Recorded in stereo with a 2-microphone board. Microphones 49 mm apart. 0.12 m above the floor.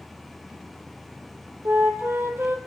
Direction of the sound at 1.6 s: 60° right (ahead or behind).